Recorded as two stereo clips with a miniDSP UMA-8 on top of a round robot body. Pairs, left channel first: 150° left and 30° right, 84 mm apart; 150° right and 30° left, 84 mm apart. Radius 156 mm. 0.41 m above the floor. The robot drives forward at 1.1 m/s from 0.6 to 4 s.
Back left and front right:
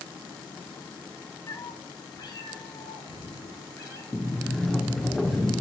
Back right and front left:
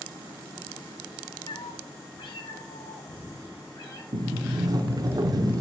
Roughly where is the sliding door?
Ahead left.